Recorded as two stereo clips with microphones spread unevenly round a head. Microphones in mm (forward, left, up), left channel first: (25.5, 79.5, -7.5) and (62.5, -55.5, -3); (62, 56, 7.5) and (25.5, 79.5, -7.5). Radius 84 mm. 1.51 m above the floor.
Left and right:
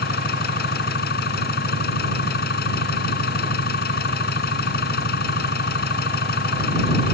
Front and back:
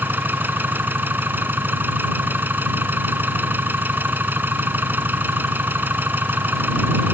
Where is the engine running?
105° left.